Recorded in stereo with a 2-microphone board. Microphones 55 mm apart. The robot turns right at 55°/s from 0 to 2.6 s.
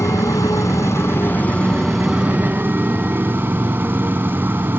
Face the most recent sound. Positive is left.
turn(degrees=-145)